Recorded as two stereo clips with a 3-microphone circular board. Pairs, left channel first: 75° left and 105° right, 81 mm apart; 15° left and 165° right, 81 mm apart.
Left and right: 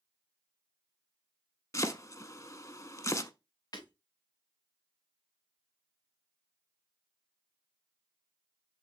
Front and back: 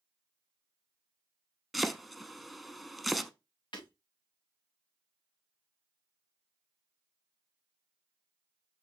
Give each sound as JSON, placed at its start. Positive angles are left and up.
{"t": 1.7, "sound": "chopping", "azimuth_deg": 105, "distance_m": 0.6}
{"t": 3.7, "sound": "breaking glass", "azimuth_deg": 35, "distance_m": 2.5}